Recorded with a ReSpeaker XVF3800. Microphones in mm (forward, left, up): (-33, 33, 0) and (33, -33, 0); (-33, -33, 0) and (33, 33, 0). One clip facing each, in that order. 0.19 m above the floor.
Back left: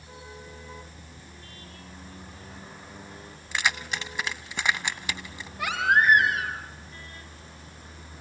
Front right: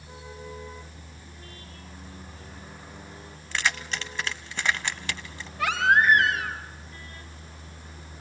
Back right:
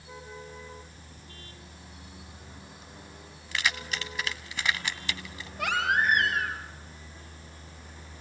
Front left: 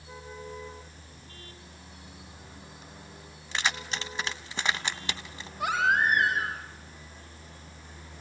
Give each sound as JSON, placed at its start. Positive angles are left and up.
{"t": 3.5, "sound": "keys jangling", "azimuth_deg": 70, "distance_m": 0.7}
{"t": 5.6, "sound": "a baby crying", "azimuth_deg": -145, "distance_m": 3.5}